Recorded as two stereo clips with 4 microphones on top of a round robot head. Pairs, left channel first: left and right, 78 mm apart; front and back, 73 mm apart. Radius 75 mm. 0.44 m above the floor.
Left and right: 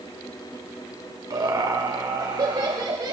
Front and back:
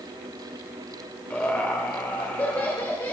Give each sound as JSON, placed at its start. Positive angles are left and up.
{"t": 1.3, "sound": "laughter", "azimuth_deg": -70, "distance_m": 2.0}